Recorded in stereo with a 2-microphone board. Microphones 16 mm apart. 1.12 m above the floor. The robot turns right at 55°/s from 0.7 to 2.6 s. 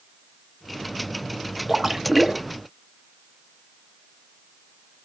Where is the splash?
155° right, 0.8 m; by 2.4 s 115° right, 0.8 m.